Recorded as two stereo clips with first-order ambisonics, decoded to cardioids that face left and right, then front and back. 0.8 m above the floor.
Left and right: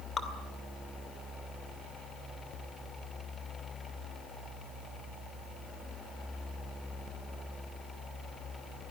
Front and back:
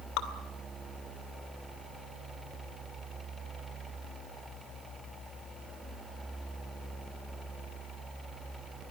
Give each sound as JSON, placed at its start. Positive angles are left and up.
{"t": 0.2, "sound": "dripping", "azimuth_deg": 20, "distance_m": 2.0}